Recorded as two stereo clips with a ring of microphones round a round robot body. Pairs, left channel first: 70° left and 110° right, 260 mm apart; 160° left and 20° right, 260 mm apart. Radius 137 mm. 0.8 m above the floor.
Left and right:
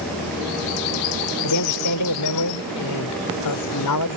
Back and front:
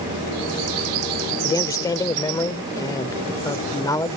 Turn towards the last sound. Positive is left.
turn(degrees=80)